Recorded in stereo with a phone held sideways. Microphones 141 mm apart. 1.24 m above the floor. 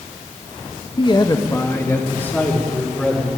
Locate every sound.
1.0 s a man speaking: 35° left (ahead or behind), 1.2 m; by 3.3 s 10° left (ahead or behind), 4.5 m